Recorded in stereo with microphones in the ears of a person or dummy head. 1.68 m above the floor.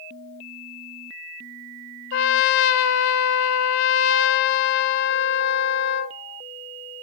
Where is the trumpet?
70° left (ahead or behind), 0.6 m.